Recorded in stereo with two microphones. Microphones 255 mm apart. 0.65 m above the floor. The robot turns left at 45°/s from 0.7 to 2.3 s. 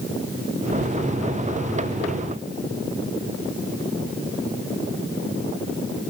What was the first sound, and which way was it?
Only background noise.